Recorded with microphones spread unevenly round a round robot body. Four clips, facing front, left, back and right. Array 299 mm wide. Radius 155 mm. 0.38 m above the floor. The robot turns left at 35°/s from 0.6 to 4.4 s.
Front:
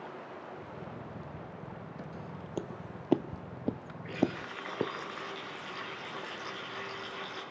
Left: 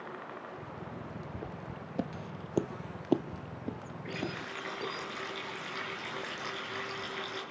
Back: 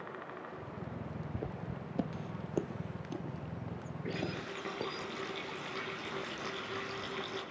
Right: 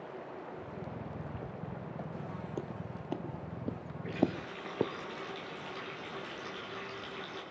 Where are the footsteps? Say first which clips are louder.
Even, back 3 dB; 175° left, 1.4 m; by 4.9 s 55° right, 1.8 m.